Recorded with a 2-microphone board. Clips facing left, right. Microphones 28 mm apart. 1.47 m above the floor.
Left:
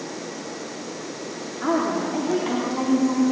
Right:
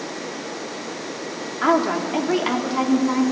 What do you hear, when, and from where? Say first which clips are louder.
1.6 s a woman speaking: right 4 dB; 60° right (ahead or behind), 3.5 m